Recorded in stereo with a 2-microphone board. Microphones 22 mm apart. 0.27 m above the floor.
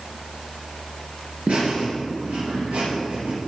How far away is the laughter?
About 4 m.